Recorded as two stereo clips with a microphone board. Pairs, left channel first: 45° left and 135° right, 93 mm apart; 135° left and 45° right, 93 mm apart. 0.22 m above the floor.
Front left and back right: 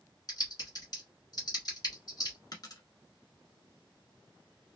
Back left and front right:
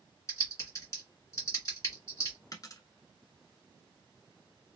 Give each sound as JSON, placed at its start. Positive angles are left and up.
{"t": 0.3, "sound": "typing on a keyboard", "azimuth_deg": 80, "distance_m": 1.7}
{"t": 2.5, "sound": "a dropped coin", "azimuth_deg": 85, "distance_m": 0.9}